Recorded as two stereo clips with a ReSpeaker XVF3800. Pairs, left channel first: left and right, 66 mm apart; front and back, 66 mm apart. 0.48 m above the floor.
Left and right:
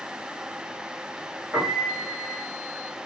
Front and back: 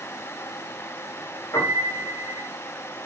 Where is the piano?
35° right, 7 m.